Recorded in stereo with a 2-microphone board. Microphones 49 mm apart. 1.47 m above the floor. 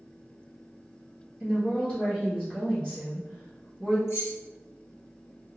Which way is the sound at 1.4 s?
15° left (ahead or behind).